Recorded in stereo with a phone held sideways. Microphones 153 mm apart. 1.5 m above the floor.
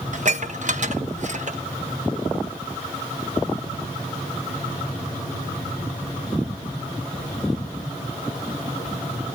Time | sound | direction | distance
0.1 | dishes clattering | 50° right (ahead or behind) | 1.0 m